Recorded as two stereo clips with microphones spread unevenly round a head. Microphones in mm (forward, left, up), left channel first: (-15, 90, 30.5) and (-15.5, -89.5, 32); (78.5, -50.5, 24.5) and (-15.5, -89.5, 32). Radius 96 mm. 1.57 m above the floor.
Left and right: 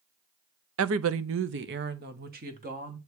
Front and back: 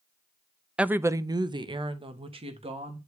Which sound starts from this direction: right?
A woman speaking, at 0.8 s.